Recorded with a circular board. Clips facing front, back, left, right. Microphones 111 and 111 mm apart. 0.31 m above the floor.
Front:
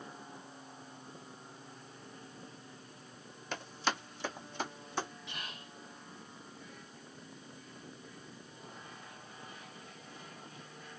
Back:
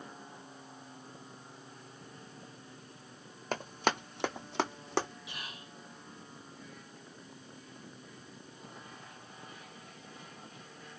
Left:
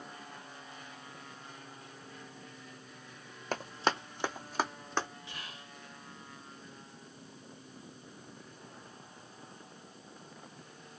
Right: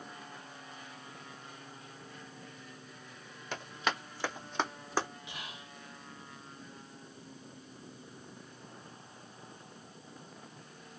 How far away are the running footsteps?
About 0.9 m.